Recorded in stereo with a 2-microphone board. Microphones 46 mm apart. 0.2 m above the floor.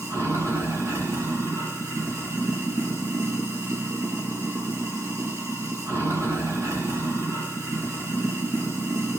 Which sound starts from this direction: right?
Running water, at 0.0 s.